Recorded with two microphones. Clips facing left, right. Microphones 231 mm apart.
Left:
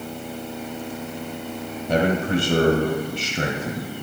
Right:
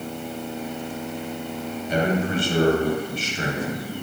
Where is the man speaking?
65° left (ahead or behind), 1.8 m.